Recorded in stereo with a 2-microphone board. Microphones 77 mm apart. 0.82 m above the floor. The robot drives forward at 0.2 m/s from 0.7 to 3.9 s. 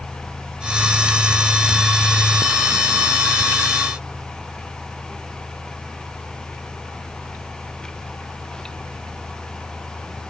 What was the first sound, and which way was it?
Only background noise.